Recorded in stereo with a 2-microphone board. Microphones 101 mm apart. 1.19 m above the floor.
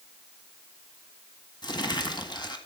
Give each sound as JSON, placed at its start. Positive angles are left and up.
{"t": 1.6, "sound": "crumpling", "side_deg": 45, "distance_m": 1.8}